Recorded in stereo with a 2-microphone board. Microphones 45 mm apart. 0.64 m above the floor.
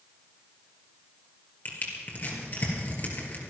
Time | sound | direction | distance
1.6 | crushing | 45° left (ahead or behind) | 4 m